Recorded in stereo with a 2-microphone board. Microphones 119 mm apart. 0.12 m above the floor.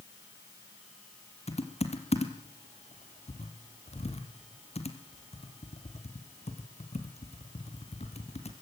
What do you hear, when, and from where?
1.5 s typing on a keyboard: 60° left (ahead or behind), 2.5 m